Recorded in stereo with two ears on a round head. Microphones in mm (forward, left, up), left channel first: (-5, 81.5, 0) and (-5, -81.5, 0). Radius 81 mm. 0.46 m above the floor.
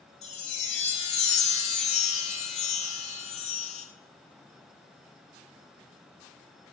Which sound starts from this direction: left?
A chime, at 0.2 s.